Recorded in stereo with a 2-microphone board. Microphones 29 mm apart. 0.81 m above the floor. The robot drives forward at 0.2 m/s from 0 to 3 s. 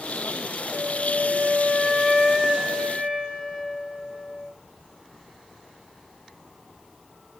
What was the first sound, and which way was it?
A flute, 45° right (ahead or behind).